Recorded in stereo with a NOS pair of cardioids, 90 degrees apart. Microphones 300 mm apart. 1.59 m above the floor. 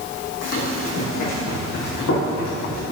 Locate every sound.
0.4 s running footsteps: 60° left, 6 m; by 2.8 s 65° left, 8 m